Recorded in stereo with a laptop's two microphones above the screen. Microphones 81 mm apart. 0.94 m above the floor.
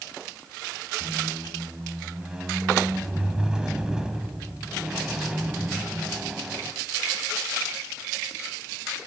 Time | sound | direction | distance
1.0 | a squeak | 10° right (ahead or behind) | 1.3 m